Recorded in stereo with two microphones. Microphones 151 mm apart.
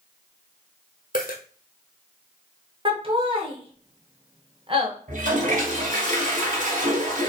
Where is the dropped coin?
75° left (ahead or behind), 1.1 m.